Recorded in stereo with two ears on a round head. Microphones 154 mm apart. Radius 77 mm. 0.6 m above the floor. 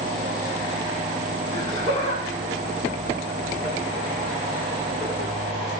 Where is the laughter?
40° left (ahead or behind), 5.5 m; by 5.3 s 65° left (ahead or behind), 5 m.